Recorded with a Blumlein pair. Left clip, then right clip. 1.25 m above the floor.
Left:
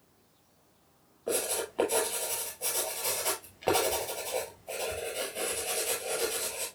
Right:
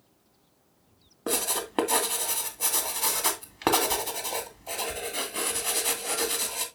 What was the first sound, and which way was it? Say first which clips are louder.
Writing: right 2 dB; 40° right.